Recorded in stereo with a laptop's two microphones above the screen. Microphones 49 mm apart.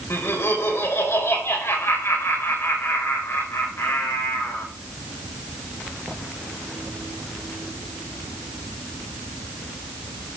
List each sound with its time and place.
0.1 s laughter: 60° left (ahead or behind), 4 m